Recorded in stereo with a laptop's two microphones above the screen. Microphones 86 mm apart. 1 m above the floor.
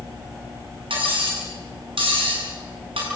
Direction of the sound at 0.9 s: 85° right.